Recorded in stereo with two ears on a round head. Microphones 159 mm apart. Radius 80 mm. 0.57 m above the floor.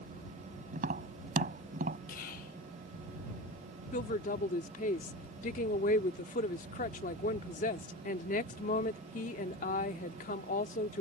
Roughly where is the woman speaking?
Left.